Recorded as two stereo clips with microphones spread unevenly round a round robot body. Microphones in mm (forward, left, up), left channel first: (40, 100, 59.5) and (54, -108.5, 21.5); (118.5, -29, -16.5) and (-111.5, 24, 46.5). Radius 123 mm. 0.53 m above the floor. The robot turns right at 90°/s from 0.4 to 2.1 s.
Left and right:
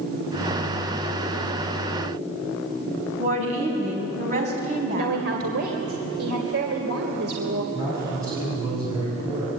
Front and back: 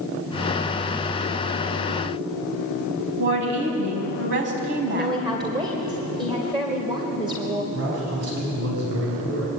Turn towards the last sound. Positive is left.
turn(degrees=-160)